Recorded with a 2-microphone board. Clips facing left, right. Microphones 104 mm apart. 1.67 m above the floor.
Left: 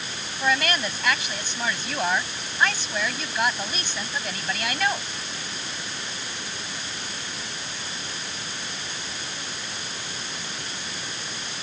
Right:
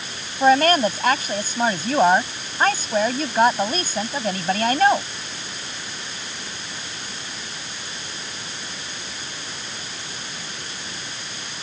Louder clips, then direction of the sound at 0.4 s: Right 10 dB; 40° right (ahead or behind).